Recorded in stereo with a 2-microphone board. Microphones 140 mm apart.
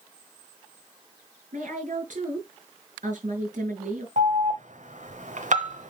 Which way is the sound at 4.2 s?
60° right (ahead or behind).